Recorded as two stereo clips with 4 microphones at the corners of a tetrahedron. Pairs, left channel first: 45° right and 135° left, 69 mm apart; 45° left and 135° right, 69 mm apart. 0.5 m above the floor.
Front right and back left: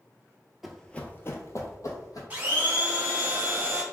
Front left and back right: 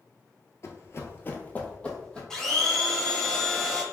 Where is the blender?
120° left, 1.0 m.